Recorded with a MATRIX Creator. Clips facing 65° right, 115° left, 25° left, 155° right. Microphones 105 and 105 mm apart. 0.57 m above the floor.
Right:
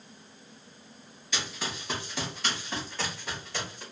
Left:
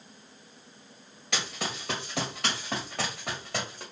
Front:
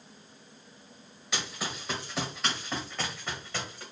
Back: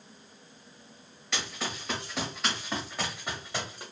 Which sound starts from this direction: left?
Running footsteps, at 1.3 s.